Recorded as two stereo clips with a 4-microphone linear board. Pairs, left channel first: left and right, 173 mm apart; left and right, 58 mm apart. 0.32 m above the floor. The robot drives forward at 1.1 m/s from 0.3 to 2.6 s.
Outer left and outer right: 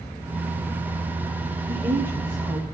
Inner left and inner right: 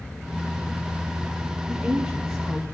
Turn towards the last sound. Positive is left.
turn(degrees=-15)  # may be behind; listen again after turning